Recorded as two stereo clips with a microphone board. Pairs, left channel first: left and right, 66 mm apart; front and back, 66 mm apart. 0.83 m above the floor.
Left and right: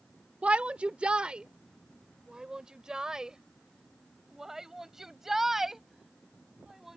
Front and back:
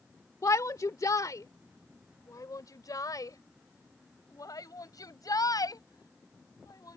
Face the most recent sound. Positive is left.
turn(degrees=-5)